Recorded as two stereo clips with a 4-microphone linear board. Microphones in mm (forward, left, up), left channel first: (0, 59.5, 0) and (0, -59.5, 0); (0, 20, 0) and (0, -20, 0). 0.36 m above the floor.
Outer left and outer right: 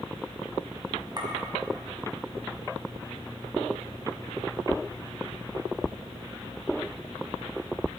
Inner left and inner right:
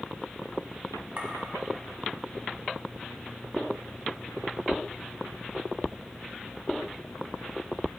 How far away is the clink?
About 1.8 m.